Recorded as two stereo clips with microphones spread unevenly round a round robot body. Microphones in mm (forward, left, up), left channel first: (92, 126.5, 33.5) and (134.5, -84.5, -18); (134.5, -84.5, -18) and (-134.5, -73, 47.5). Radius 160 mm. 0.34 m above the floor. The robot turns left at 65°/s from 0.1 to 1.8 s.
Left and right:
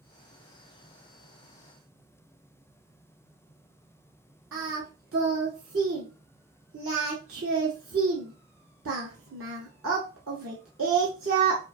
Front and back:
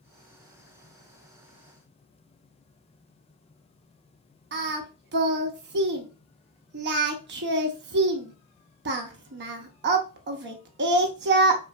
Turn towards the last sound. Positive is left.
turn(degrees=-135)